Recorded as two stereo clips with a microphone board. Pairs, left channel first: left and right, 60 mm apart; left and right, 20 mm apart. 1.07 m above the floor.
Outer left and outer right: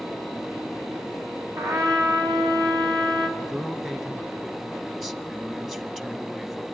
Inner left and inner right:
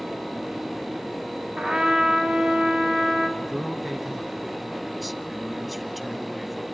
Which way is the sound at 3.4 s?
10° right (ahead or behind).